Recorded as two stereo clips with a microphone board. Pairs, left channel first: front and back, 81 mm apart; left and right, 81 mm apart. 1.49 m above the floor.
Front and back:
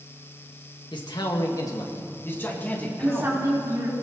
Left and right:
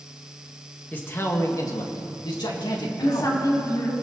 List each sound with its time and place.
0.9 s a man speaking: 20° left, 1.6 m; by 3.4 s 80° left, 3 m
3.0 s a woman speaking: 125° left, 4 m